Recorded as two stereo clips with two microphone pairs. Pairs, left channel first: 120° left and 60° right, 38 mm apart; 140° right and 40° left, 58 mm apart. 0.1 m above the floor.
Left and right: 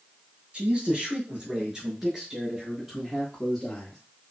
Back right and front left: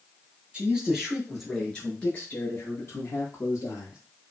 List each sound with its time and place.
0.5 s a man speaking: 20° right, 2.0 m; by 4.0 s 160° right, 2.5 m